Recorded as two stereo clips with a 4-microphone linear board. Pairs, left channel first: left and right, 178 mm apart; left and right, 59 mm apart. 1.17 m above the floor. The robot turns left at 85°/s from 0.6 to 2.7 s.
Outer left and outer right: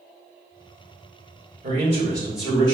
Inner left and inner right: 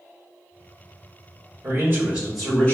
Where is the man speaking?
115° right, 1.8 m; by 2.7 s 155° left, 1.8 m.